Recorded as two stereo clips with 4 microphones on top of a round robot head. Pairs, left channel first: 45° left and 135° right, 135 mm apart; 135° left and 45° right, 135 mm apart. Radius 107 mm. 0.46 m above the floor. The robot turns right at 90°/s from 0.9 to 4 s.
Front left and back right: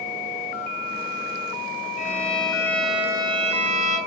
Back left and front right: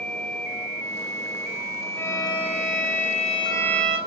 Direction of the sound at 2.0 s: 55° left.